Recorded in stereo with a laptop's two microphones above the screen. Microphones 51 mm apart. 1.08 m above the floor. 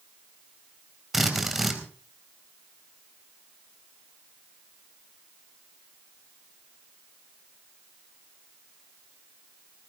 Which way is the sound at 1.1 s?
5° right (ahead or behind).